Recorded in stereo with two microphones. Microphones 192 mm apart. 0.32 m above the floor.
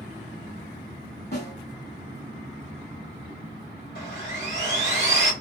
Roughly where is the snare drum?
Left.